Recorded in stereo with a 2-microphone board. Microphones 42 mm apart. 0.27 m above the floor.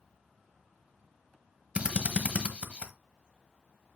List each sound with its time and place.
1.8 s a drill: 30° right (ahead or behind), 1.2 m